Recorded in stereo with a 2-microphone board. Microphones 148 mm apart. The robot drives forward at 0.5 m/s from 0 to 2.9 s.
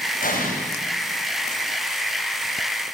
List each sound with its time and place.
0.2 s an explosion: 65° left (ahead or behind), 7.5 m